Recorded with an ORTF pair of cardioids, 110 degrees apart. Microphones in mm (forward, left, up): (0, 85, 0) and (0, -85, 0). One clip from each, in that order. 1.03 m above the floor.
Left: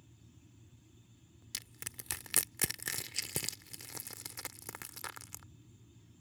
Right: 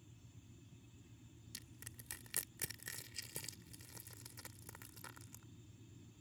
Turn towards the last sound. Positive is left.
turn(degrees=60)